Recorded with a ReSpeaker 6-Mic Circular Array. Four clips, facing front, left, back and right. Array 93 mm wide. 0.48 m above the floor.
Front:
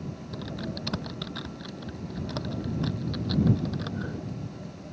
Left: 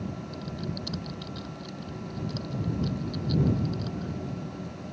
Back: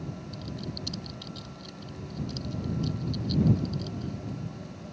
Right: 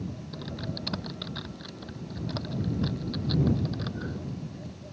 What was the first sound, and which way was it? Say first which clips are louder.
Typing on a keyboard: left 1 dB, front 3 dB; 35° right.